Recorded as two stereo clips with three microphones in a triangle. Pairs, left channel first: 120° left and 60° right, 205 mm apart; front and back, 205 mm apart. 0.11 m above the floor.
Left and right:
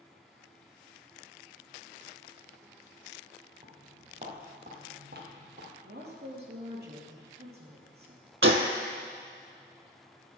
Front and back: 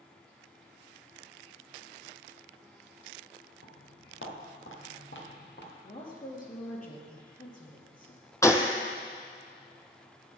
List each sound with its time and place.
3.6 s footsteps: 5° left, 2.5 m; by 5.7 s 30° right, 3 m
5.8 s a woman speaking: 40° right, 2.5 m
8.4 s a gunshot: 75° right, 0.7 m